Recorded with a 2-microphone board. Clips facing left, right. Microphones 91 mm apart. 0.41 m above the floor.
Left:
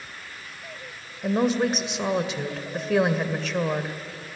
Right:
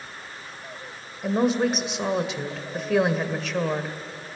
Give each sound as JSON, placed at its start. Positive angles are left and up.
{"t": 1.2, "sound": "a woman speaking", "side_deg": 0, "distance_m": 1.8}